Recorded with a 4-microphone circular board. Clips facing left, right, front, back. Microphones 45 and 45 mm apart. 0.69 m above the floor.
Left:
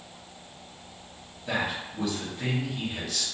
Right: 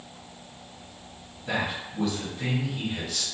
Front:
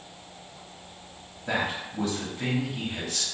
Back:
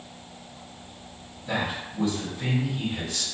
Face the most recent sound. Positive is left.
turn(degrees=-5)